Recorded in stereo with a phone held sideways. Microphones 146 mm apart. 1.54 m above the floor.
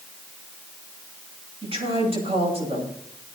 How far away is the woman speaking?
About 8.5 m.